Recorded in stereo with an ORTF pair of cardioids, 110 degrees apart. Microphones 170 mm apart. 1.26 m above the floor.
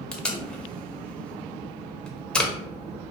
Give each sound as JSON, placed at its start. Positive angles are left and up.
{"t": 0.1, "sound": "tape being pulled", "azimuth_deg": 5, "distance_m": 0.5}